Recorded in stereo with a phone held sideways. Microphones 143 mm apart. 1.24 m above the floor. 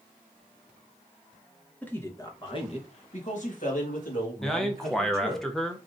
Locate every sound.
1.8 s a man speaking: 10° left (ahead or behind), 1.0 m; by 5.4 s 80° left, 2.5 m
4.4 s a man speaking: 5° left (ahead or behind), 0.6 m